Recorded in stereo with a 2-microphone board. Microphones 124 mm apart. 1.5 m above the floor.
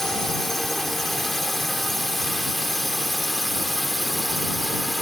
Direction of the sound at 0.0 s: 5° left (ahead or behind).